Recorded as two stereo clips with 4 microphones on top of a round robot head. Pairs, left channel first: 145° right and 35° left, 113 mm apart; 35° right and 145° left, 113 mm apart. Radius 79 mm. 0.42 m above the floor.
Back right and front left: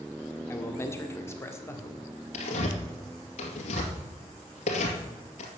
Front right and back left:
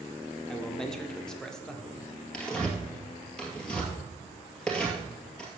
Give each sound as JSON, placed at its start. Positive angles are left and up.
{"t": 0.5, "sound": "a man speaking", "azimuth_deg": -115, "distance_m": 1.4}
{"t": 2.3, "sound": "tearing paper", "azimuth_deg": -115, "distance_m": 2.0}